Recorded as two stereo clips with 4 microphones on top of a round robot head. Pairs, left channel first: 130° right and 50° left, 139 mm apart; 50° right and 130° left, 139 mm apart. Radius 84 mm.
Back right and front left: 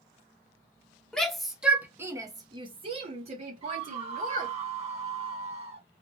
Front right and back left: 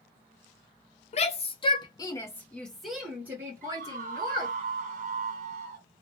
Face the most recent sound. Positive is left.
turn(degrees=95)